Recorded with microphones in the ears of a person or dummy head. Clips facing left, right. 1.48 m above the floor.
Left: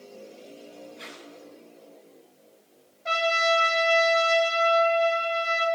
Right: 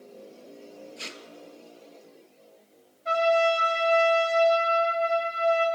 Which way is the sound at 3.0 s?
70° left (ahead or behind).